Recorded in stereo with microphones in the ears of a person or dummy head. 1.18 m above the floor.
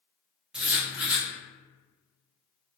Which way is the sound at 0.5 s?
5° right (ahead or behind).